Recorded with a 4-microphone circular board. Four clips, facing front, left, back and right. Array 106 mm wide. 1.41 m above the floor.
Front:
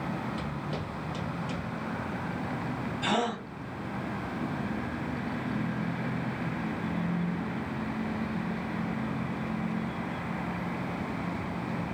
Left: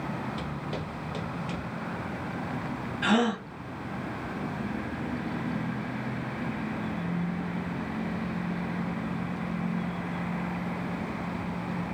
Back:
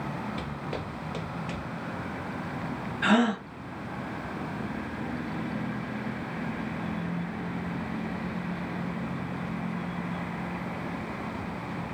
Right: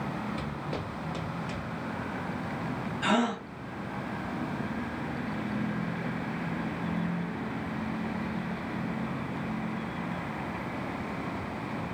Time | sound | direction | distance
0.4 | footsteps | 165° right | 1.8 m
3.0 | a gasp | 175° left | 2 m